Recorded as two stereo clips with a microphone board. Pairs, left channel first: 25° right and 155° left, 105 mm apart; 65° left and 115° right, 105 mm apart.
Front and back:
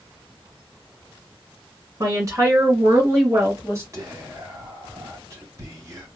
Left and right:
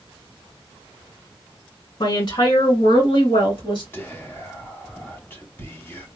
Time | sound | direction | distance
2.0 | a woman speaking | 105° left | 1.9 m
3.9 | whispering | 120° left | 1.5 m